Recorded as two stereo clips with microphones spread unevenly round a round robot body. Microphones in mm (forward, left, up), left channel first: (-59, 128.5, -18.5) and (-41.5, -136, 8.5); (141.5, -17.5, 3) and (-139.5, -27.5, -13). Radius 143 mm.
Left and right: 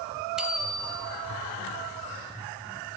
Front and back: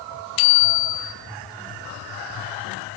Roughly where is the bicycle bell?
Ahead.